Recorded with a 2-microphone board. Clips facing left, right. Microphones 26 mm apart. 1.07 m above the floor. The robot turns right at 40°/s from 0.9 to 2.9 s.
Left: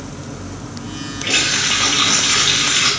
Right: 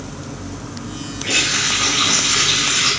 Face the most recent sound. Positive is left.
turn(degrees=100)